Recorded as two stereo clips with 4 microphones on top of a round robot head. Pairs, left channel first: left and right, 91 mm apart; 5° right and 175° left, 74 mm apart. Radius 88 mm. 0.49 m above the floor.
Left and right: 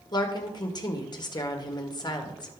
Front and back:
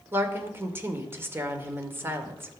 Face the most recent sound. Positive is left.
turn(degrees=120)